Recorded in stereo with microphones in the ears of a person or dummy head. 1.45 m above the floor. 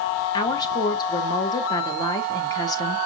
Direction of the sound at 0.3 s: 25° left (ahead or behind).